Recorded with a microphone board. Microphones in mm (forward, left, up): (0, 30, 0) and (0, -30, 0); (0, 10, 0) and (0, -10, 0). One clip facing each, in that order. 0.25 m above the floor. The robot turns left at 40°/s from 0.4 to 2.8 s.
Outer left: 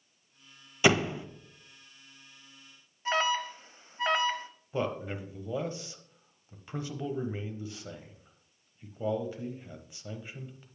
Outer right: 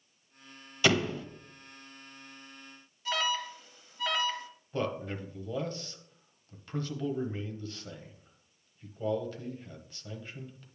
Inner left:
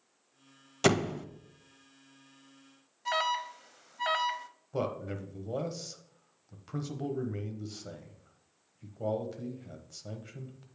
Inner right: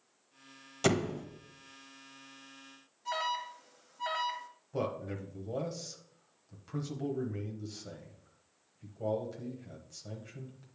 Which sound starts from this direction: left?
An alarm, at 3.0 s.